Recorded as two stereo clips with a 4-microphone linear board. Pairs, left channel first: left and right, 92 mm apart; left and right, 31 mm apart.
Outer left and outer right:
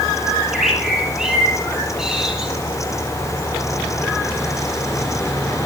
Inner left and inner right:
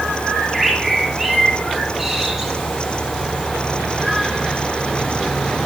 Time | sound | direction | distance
0.3 | a bird | 5° right (ahead or behind) | 6.5 m